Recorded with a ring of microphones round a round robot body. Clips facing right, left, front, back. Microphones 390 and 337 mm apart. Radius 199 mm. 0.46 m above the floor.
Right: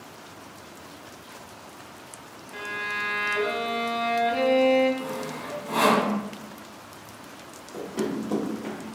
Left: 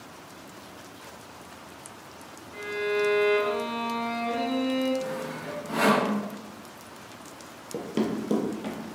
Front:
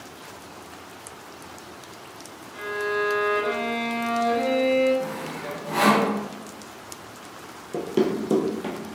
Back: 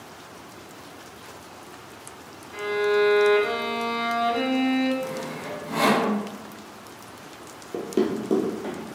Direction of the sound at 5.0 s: 50° right.